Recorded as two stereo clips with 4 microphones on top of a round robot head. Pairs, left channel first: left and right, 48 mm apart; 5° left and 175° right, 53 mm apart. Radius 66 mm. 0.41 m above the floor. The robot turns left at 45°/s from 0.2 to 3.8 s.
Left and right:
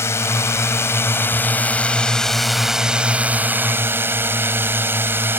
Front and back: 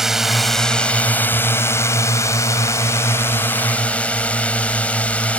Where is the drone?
100° left; by 5.4 s 60° right.